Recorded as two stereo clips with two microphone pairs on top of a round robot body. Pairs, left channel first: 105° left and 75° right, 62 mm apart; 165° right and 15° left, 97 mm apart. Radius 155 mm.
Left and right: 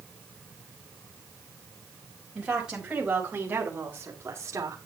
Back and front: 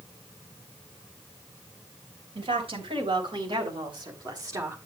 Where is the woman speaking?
5° left, 5 m; by 4.8 s 40° right, 2.5 m.